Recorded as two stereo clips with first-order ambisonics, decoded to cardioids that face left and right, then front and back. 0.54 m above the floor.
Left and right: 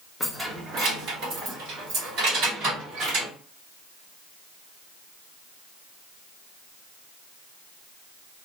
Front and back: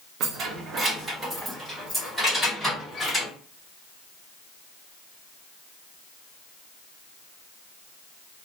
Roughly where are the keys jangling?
Behind.